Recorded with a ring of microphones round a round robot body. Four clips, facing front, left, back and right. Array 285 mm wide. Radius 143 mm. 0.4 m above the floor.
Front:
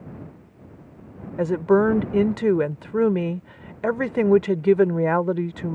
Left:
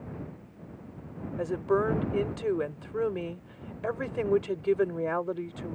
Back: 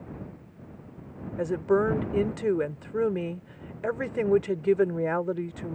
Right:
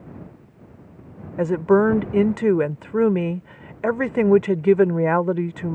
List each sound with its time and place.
1.4 s a woman speaking: 60° right